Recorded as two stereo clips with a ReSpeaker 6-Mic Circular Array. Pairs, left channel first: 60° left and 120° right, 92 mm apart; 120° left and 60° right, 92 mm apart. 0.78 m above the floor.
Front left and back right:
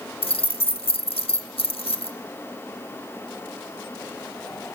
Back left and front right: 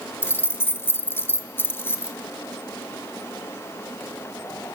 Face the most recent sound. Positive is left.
turn(degrees=55)